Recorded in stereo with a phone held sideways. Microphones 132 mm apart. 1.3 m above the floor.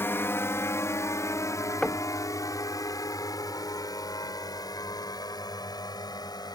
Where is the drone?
15° left (ahead or behind); by 6.5 s 30° left (ahead or behind).